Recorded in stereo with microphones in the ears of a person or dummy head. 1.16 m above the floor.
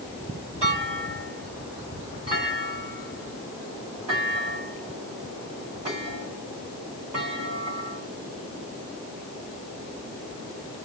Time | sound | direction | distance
0.6 | a clunk | 30° right (ahead or behind) | 3.5 m